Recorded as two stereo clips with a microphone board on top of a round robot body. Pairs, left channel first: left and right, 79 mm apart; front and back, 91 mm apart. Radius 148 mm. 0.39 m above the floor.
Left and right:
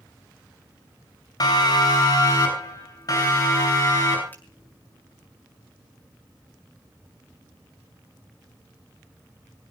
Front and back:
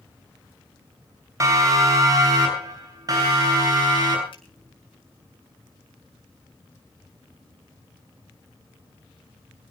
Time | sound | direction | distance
1.4 | a siren | 125° left | 7 m
4.3 | a finger snap | 25° left | 8.5 m